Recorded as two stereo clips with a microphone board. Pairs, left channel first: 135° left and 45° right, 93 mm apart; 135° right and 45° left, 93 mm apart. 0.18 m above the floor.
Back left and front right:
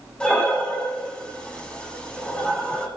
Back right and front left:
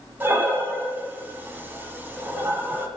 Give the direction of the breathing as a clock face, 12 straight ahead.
10 o'clock.